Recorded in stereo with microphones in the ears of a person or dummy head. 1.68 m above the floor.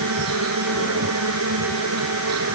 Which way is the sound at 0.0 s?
85° right.